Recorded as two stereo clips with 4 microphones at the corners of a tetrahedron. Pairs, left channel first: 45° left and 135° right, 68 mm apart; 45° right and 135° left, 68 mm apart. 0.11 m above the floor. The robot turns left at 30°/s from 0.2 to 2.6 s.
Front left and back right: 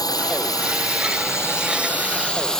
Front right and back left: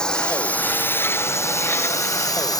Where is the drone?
35° left; by 2.6 s 40° right.